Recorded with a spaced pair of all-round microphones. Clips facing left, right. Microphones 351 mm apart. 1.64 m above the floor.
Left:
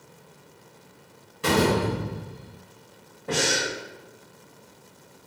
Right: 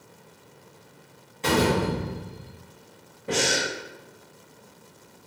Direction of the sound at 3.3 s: 5° right (ahead or behind).